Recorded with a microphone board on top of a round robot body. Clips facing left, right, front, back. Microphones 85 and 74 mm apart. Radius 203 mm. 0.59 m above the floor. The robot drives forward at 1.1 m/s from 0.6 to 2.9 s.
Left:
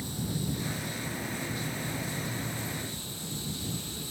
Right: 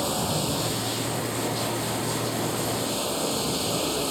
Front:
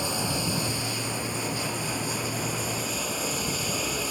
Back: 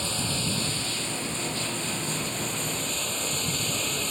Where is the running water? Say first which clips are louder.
Right 8 dB, front 2 dB; 75° right; by 4.1 s 80° right.